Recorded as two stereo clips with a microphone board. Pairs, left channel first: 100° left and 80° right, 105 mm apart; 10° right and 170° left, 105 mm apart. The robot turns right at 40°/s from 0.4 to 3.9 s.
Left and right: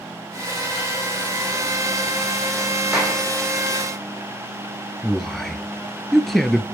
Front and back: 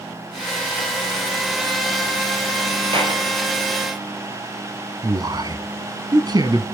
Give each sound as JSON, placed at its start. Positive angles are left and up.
{"t": 2.9, "sound": "a clap", "azimuth_deg": -165, "distance_m": 4.5}
{"t": 5.0, "sound": "a man speaking", "azimuth_deg": -175, "distance_m": 1.3}